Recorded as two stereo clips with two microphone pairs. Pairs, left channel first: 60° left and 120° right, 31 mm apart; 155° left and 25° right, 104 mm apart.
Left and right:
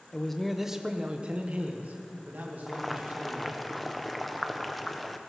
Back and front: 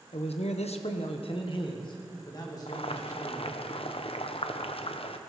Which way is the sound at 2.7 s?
145° left.